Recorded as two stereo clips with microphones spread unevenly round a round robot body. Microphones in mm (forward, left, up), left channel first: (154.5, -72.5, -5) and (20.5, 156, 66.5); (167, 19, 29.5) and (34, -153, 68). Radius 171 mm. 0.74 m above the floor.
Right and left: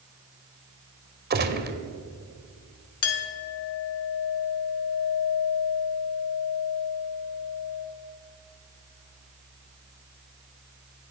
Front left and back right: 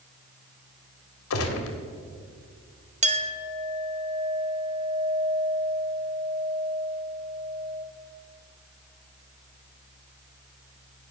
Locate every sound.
1.3 s a gunshot: 65° left, 1.4 m
3.0 s a clink: 65° right, 1.1 m